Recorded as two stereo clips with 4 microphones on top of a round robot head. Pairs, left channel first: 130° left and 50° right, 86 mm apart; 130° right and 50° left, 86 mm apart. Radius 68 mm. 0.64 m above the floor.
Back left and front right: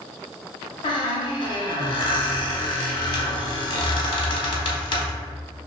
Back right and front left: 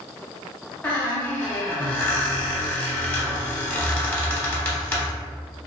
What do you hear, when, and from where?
0.8 s a squeak: 155° left, 0.7 m